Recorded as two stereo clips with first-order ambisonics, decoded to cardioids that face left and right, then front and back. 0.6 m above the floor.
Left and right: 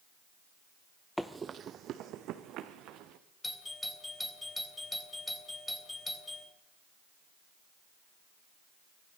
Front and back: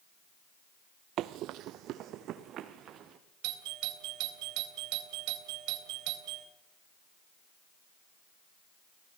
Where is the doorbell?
175° left, 3 m.